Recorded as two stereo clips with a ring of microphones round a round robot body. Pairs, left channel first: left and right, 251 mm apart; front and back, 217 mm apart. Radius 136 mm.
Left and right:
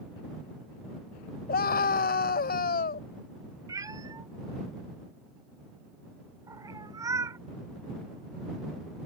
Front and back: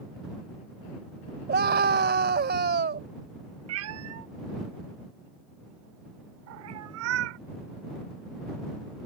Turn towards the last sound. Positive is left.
turn(degrees=-170)